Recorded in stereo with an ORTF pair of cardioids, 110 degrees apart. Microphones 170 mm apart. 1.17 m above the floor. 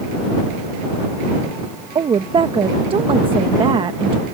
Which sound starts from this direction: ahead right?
A woman speaking, at 1.9 s.